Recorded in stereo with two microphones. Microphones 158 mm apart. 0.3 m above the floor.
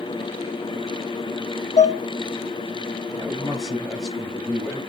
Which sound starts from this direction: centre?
A man speaking, at 3.1 s.